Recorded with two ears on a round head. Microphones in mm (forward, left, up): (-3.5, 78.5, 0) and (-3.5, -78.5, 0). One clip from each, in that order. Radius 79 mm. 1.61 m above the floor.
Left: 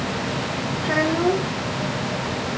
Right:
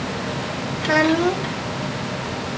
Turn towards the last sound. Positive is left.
turn(degrees=-60)  # may be behind; listen again after turning